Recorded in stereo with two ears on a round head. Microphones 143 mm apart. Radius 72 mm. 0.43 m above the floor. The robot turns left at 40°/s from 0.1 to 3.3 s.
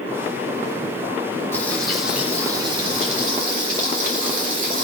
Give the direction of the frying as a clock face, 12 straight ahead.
11 o'clock.